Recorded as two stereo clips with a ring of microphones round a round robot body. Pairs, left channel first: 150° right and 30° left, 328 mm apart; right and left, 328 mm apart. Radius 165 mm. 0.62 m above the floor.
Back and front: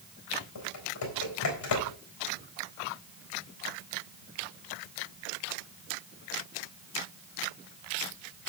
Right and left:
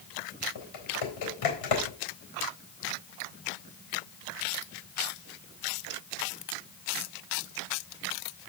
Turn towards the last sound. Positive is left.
turn(degrees=-110)